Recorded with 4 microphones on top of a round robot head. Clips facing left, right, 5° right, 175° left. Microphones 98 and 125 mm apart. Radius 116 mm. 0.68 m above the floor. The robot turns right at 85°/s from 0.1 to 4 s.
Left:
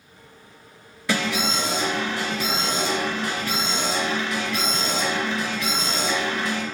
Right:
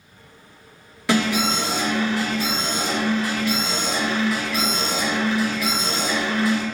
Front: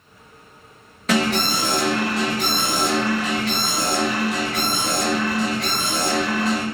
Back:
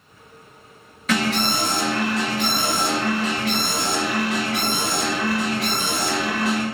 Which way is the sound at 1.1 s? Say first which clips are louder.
Right 4 dB, front 2 dB; 65° right.